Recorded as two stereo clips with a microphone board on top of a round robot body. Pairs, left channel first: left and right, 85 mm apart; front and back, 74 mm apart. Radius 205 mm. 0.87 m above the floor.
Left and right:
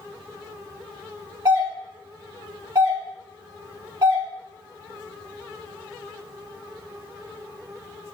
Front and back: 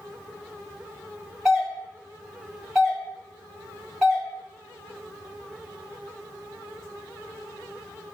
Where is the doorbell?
95° right, 1.6 m.